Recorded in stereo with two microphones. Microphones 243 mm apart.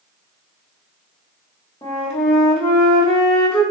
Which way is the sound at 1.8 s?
25° left (ahead or behind).